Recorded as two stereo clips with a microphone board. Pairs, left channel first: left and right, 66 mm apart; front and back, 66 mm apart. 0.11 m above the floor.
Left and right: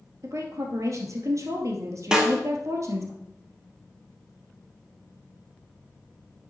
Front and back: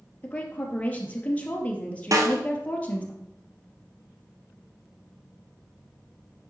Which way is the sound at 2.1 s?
170° right.